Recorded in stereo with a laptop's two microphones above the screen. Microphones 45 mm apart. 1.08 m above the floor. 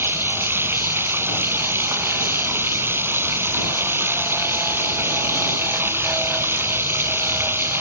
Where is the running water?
60° right (ahead or behind).